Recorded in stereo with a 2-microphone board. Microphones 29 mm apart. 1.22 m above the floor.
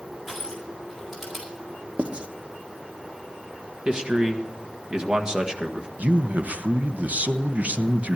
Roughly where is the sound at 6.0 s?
Right.